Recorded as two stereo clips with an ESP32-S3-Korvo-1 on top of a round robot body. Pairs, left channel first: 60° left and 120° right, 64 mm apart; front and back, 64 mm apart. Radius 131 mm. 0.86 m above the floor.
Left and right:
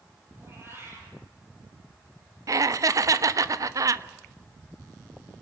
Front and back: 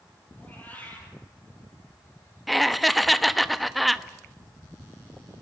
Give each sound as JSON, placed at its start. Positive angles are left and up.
{"t": 0.4, "sound": "a cat meowing", "azimuth_deg": -65, "distance_m": 7.5}
{"t": 2.5, "sound": "laughter", "azimuth_deg": -90, "distance_m": 1.3}